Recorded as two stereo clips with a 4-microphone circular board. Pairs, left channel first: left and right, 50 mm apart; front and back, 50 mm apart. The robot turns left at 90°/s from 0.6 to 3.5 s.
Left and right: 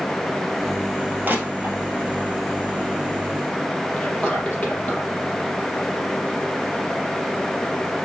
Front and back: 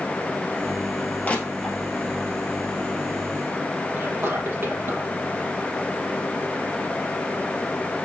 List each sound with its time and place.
1.2 s crushing: 50° right, 2 m; by 1.8 s 95° right, 2 m
4.0 s whispering: 150° left, 3.5 m